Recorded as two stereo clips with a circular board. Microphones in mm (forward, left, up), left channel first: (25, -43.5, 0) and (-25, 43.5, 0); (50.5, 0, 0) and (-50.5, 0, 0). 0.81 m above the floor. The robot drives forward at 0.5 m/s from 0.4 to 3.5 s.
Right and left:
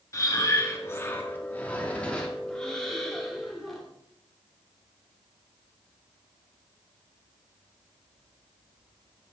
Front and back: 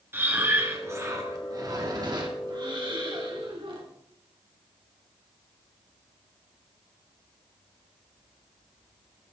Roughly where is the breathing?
Behind right.